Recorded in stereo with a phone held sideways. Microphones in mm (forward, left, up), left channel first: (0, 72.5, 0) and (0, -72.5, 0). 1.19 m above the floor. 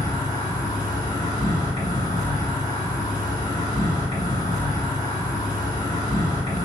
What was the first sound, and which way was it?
An insect, 25° left (ahead or behind).